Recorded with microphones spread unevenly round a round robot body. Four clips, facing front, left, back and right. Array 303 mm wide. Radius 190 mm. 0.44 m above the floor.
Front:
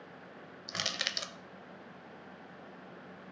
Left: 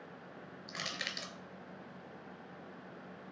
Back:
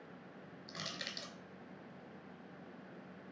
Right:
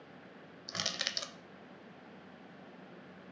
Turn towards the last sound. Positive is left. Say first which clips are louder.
# right 2 dB, front 8 dB
turn(degrees=-20)